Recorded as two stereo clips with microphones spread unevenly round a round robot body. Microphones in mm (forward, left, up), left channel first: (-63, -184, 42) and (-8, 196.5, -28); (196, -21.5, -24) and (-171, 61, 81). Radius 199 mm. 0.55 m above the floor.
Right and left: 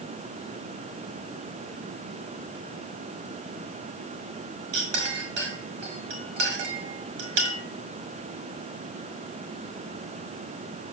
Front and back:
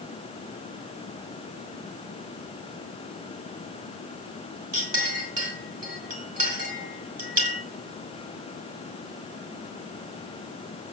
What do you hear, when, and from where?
4.7 s a clink: 95° left, 5.5 m